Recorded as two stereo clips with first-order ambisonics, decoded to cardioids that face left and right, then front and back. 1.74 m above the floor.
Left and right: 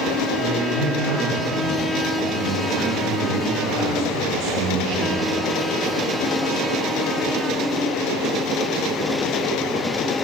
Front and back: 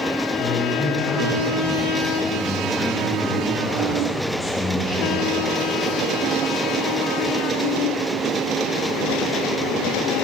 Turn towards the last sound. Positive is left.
turn(degrees=-75)